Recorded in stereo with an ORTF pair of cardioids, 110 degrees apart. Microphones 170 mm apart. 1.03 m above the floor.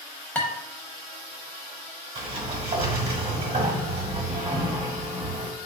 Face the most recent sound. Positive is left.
turn(degrees=-35)